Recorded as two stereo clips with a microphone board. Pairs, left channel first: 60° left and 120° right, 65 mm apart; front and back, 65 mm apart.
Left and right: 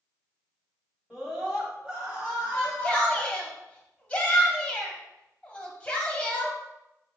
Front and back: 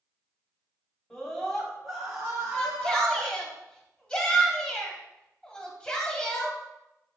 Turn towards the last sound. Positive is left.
turn(degrees=45)